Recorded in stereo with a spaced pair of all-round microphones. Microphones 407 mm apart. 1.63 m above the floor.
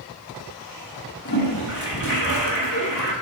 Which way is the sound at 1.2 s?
45° left (ahead or behind).